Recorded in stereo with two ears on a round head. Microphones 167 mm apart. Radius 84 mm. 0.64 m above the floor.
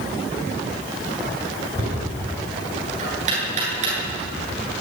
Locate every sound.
1.8 s knocking: 40° right (ahead or behind), 10 m